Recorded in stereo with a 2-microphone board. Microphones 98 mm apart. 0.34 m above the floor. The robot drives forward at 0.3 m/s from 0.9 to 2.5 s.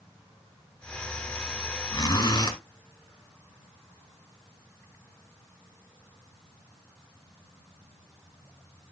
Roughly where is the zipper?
Left.